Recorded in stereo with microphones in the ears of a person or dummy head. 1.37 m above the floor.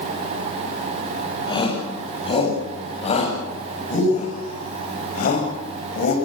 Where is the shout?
25° left (ahead or behind), 8 m; by 6.2 s 55° left (ahead or behind), 7 m.